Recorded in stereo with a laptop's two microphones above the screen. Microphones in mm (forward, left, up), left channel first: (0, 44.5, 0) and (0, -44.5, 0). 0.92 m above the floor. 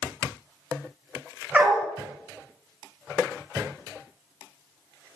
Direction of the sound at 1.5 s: 10° right (ahead or behind).